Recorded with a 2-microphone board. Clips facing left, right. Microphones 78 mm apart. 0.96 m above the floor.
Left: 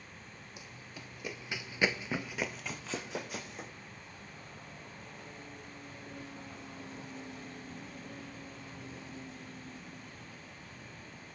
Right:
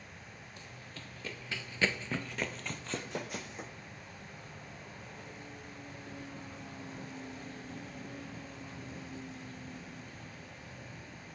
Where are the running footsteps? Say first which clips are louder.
Left 1 dB; 10° left (ahead or behind), 1.8 m; by 3.7 s centre (ahead or behind), 2.5 m.